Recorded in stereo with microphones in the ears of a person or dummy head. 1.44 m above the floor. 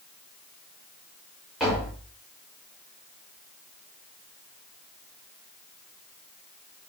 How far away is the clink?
I don't hear a clink.